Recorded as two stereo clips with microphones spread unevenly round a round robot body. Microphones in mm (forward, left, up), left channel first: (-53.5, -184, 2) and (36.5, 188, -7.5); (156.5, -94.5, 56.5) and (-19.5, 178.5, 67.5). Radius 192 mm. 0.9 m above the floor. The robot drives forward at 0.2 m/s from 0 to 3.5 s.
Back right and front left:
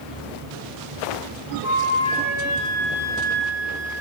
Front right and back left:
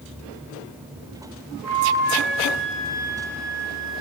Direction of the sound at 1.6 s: 155° right.